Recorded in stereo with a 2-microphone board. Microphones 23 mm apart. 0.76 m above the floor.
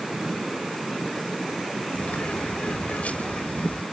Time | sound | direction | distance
1.9 | a bird | 80° left | ?